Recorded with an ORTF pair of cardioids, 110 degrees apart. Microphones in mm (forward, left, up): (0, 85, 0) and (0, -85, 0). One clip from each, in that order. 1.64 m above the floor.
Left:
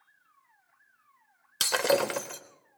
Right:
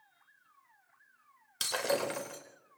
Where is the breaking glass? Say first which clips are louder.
Left 7 dB; 45° left, 4 m.